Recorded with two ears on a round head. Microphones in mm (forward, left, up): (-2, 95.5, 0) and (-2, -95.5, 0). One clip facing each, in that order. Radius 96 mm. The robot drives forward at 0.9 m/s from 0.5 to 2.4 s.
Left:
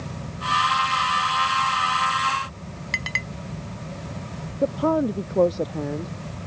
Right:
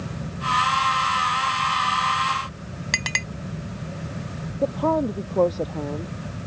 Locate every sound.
2.9 s a clink: 65° right (ahead or behind)
4.6 s a woman speaking: 10° left (ahead or behind)